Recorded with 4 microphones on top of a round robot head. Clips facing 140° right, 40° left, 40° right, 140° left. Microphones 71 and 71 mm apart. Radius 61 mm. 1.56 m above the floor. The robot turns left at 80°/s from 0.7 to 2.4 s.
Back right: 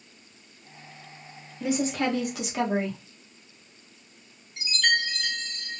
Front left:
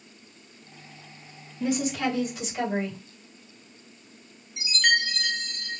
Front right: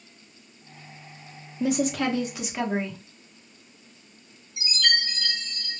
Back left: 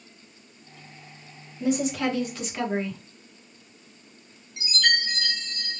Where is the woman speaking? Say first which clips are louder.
Even, even; 55° right, 0.9 m; by 3.0 s 120° right, 0.9 m.